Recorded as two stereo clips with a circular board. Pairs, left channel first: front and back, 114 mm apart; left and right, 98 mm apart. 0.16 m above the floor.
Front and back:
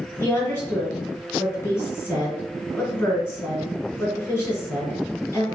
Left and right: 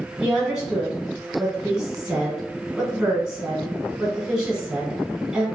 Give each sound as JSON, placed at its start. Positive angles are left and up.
{"t": 0.2, "sound": "a woman speaking", "azimuth_deg": -20, "distance_m": 1.3}